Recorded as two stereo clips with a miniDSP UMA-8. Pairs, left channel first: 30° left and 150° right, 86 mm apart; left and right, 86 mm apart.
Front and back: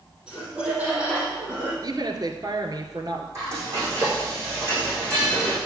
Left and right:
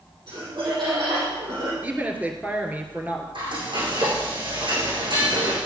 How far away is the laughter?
About 4 m.